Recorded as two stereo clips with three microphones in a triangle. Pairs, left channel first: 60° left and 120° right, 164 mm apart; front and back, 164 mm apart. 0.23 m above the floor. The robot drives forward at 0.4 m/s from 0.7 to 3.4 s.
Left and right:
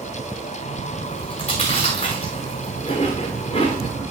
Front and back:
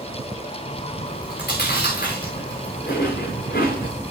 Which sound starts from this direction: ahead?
Chewing, at 1.1 s.